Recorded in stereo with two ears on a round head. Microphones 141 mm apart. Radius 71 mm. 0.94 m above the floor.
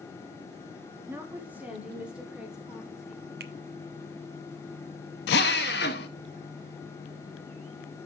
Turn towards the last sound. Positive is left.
turn(degrees=75)  # may be behind; listen again after turning